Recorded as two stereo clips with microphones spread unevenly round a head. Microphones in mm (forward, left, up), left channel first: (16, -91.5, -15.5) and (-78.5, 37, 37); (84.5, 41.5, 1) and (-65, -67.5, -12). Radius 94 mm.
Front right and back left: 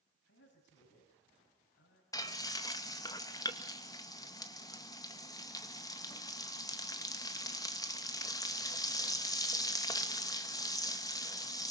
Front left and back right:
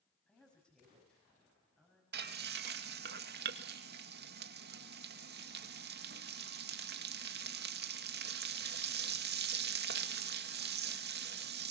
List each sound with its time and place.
0.3 s a woman speaking: 50° right, 6 m
2.1 s frying: 115° right, 1.8 m